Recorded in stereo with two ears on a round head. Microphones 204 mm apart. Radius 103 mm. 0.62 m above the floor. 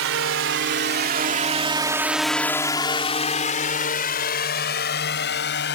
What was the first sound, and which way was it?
A drone, 60° right (ahead or behind).